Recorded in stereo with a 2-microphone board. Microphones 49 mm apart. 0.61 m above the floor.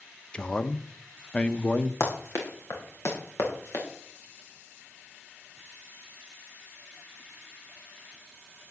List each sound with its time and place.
0.3 s a man speaking: 20° left (ahead or behind), 0.6 m
2.0 s running footsteps: 80° left, 3 m